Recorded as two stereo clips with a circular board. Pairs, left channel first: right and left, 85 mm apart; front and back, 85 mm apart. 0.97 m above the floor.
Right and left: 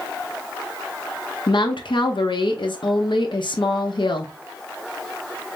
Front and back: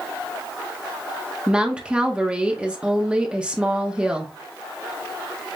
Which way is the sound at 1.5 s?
100° right.